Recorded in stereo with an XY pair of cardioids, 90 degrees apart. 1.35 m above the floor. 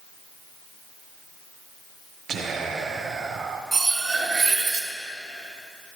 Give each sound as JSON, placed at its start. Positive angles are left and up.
{"t": 2.3, "sound": "whispering", "azimuth_deg": -60, "distance_m": 1.4}
{"t": 3.7, "sound": "cutlery clinking", "azimuth_deg": -30, "distance_m": 1.2}